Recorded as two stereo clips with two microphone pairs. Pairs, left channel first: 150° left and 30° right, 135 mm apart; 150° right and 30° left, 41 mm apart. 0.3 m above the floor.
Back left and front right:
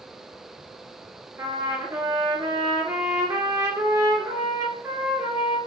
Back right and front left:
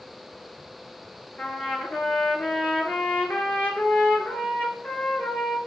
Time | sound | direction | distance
1.4 | a trumpet | 100° right | 2 m